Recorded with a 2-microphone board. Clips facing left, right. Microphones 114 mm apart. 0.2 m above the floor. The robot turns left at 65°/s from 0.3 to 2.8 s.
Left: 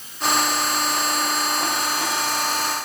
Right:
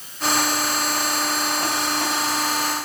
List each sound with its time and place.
Only background noise.